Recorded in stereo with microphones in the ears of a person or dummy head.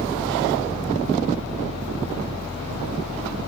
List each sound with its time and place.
0.0 s a fan: 40° right (ahead or behind), 3 m